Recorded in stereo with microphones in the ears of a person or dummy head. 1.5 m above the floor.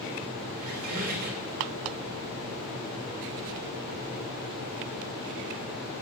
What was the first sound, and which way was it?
A squeak, 45° right (ahead or behind).